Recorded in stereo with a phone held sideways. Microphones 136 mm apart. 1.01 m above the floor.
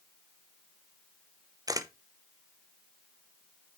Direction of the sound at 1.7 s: 25° right (ahead or behind).